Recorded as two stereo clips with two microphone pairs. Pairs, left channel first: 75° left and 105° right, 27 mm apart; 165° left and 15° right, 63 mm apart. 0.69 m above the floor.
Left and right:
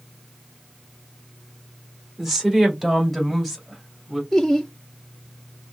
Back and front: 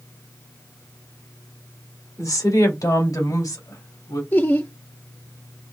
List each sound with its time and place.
2.2 s a woman speaking: 175° right, 1.8 m; by 4.2 s 170° left, 3 m
4.3 s laughter: 150° left, 0.5 m